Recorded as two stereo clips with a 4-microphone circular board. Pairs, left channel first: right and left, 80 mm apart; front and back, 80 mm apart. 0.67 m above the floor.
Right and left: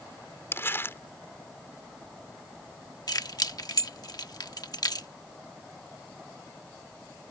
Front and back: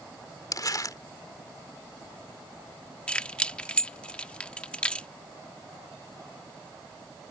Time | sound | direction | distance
0.5 | crumpling | 35° right | ?
3.1 | keys jangling | 75° right | ?